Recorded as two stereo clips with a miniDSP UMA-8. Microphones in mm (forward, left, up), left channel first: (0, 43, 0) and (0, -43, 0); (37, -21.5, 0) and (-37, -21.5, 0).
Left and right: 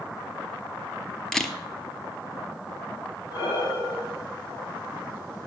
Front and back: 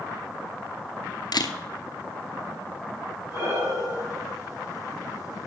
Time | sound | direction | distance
1.3 | a camera shutter | 5° left | 0.8 m
3.3 | breathing | 130° left | 4.5 m